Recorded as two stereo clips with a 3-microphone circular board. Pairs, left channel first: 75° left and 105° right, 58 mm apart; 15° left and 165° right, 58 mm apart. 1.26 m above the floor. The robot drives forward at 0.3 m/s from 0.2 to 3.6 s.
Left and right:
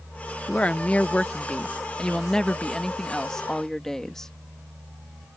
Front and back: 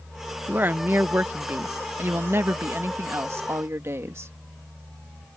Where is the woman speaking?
140° left; by 4.3 s 155° left.